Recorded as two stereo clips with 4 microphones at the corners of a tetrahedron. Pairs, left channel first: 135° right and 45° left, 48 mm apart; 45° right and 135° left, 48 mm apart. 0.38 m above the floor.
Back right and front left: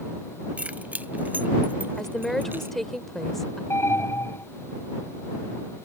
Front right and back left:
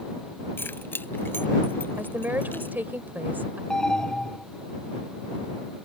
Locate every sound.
0.6 s keys jangling: 10° right; by 2.8 s straight ahead
2.0 s a woman speaking: 145° left
3.7 s an alarm: 120° right